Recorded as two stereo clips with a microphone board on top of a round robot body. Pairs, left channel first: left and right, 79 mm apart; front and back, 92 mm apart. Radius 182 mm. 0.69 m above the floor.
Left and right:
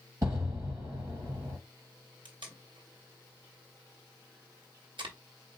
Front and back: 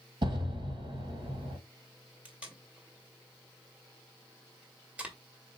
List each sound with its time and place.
0.2 s an explosion: 140° right, 3.5 m
2.2 s tape being pulled: 105° right, 1.7 m